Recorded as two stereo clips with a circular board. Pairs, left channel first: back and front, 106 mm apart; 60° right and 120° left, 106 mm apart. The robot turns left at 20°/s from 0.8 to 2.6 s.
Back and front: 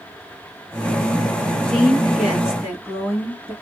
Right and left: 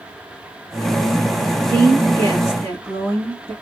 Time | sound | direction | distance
1.7 | a woman speaking | 95° left | 2 m